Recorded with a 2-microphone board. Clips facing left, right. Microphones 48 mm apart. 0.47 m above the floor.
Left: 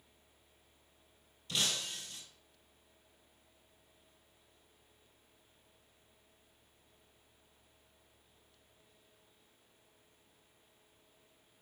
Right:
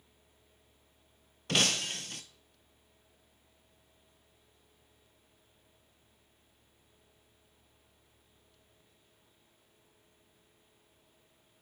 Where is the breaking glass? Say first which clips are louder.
Right 7 dB; 60° right (ahead or behind), 0.9 m.